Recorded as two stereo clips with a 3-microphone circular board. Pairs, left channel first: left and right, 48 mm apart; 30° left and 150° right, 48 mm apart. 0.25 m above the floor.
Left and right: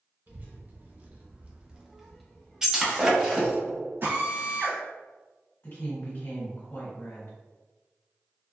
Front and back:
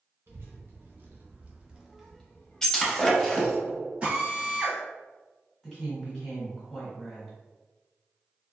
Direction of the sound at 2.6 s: 30° right.